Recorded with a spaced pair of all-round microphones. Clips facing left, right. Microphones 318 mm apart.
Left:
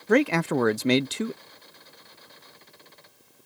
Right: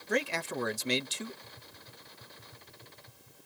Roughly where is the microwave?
No microwave in this recording.